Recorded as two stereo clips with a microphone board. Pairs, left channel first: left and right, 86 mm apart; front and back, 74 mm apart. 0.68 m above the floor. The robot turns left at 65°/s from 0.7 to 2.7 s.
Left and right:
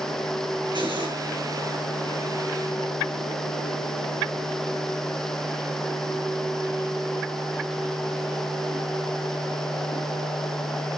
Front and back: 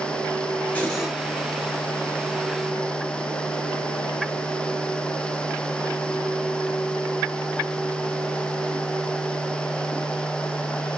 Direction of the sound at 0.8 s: 70° right.